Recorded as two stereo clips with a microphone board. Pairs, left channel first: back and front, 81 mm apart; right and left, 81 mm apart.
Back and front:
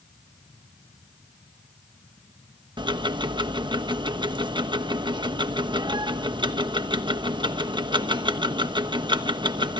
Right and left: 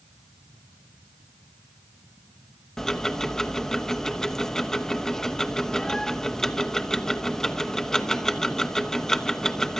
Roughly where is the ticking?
Ahead.